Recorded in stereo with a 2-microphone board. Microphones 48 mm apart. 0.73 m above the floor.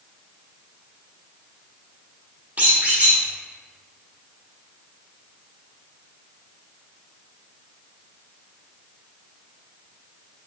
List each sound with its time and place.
2.6 s a squeak: 35° right (ahead or behind), 1.1 m